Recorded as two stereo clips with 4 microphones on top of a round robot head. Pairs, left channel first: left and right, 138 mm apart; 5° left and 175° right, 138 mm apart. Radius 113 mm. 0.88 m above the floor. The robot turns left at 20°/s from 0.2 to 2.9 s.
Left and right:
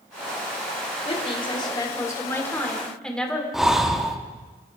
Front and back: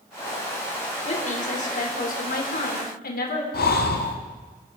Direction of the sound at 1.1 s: 45° left.